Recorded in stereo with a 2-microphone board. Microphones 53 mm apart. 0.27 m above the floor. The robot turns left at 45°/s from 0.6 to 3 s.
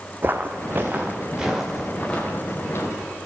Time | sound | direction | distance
0.2 | footsteps | 40° right (ahead or behind) | 0.7 m